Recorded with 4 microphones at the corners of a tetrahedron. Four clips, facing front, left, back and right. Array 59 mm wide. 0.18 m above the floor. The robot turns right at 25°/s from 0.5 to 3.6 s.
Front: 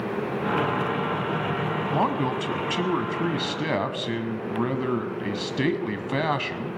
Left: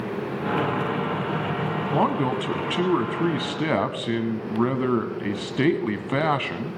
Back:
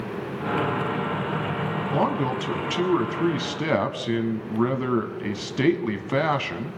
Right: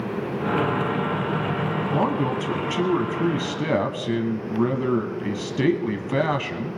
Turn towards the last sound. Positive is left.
turn(degrees=100)